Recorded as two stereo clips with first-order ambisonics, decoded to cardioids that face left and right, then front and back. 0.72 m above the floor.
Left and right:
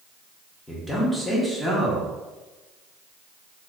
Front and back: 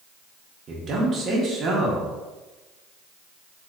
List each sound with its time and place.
0.7 s a man speaking: 175° left, 0.7 m